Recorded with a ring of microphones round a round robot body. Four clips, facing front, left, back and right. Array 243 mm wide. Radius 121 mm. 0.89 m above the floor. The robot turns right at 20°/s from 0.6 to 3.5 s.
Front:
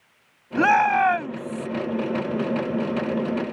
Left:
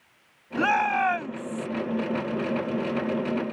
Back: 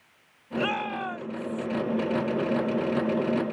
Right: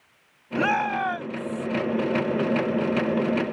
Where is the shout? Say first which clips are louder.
Left 1 dB, front 11 dB; straight ahead; by 1.7 s 20° left.